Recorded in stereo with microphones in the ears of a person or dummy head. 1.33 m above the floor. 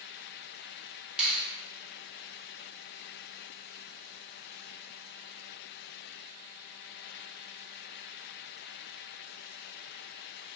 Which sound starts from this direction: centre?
A finger snap, at 1.2 s.